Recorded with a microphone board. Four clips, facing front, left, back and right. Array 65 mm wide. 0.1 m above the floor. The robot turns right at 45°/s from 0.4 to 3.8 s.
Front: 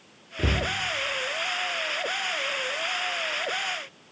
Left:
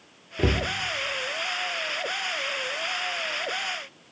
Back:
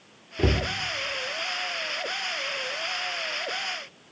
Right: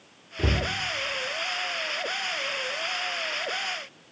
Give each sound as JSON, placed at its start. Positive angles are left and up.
{"t": 0.4, "sound": "a cupboard door", "azimuth_deg": 100, "distance_m": 1.4}